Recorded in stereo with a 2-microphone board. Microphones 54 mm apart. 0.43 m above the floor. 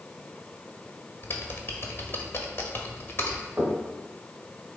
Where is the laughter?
No laughter in this recording.